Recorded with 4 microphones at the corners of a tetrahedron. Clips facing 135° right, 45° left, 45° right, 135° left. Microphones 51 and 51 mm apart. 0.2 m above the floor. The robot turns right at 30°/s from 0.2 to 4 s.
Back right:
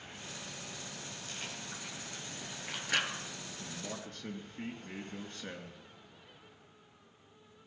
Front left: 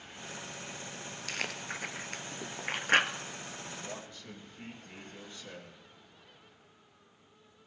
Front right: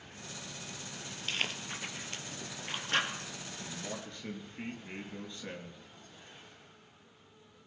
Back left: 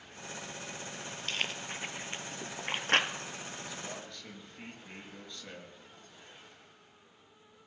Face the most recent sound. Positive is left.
turn(degrees=-110)